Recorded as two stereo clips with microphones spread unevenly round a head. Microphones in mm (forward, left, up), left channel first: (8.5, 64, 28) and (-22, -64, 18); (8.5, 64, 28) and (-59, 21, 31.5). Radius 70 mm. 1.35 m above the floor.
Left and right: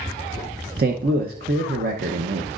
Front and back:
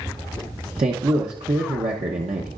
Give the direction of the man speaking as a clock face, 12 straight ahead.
4 o'clock.